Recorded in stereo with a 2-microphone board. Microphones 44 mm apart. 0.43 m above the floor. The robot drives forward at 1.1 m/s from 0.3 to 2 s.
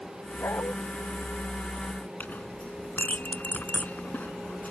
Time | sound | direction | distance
0.4 | a dog barking | 70° left (ahead or behind) | ?
2.2 | a clink | 40° left (ahead or behind) | ?